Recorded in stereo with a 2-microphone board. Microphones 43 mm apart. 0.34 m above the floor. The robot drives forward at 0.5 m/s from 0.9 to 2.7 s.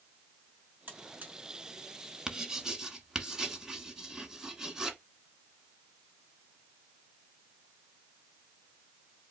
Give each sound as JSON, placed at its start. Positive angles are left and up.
{"t": 0.9, "sound": "a buzzer", "side_deg": -40, "distance_m": 2.0}
{"t": 2.3, "sound": "writing", "side_deg": -15, "distance_m": 0.9}